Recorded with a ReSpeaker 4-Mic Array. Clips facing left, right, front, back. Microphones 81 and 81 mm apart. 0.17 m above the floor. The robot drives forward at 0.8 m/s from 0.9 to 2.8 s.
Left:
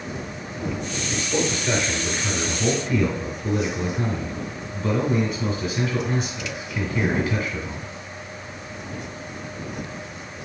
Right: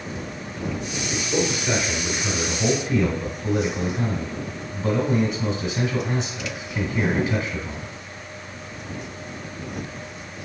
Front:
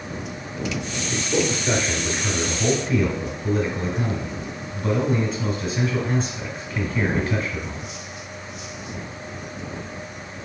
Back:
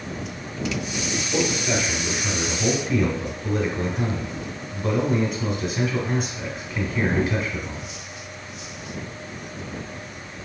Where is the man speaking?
25° right, 1.8 m; by 7.9 s 105° right, 1.3 m.